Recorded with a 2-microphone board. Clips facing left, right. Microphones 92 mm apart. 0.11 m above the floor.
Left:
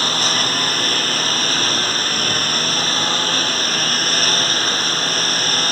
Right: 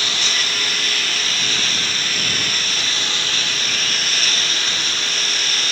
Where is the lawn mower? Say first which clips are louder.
Left 5 dB; 40° left (ahead or behind).